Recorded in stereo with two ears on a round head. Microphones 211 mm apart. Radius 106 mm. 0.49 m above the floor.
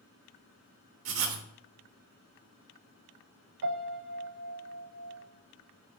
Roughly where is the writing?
Right.